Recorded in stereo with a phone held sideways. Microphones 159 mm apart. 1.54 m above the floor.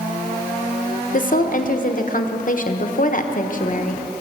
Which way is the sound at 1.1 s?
60° left (ahead or behind).